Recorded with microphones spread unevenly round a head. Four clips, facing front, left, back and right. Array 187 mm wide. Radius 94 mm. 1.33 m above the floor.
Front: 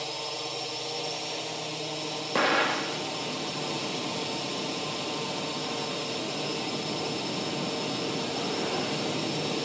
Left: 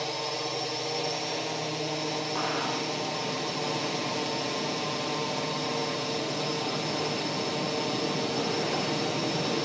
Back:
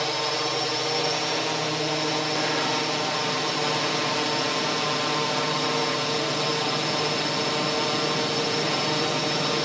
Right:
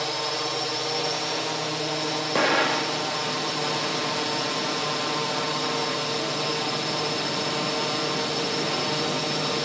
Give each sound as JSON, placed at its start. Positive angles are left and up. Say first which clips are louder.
{"t": 0.0, "sound": "a drone", "louder": "right 4 dB, back 9 dB", "azimuth_deg": -160}
{"t": 2.4, "sound": "an explosion", "louder": "right 11 dB, even", "azimuth_deg": -65}